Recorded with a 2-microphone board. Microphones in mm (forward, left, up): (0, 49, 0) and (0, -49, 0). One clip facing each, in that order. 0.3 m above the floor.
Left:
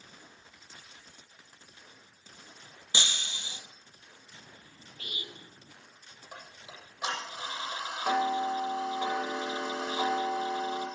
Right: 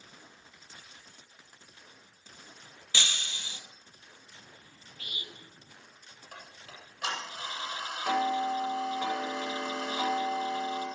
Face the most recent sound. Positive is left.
turn(degrees=15)  # may be behind; listen again after turning